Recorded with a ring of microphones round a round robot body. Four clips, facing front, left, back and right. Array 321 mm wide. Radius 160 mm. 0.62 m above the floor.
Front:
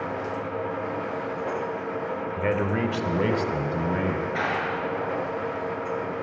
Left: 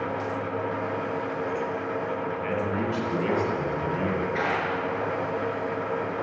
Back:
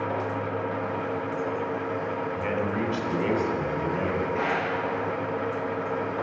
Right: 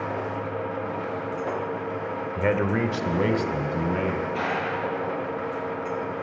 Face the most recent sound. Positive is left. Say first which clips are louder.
# even, even
turn(degrees=10)